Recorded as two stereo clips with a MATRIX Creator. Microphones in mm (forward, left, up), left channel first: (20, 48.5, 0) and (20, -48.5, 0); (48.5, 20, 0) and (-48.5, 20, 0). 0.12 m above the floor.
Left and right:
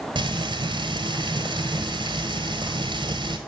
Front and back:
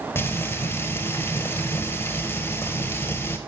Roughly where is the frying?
Ahead right.